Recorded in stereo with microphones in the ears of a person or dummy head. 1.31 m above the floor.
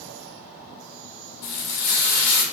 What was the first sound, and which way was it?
Frying, 65° left (ahead or behind).